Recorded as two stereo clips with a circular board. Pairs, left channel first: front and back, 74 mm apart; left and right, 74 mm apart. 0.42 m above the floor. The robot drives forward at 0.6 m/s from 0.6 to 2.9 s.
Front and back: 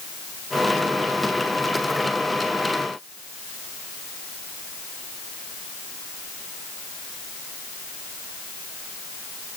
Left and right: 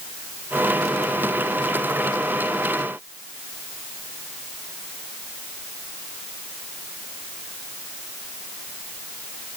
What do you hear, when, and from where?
Only background noise.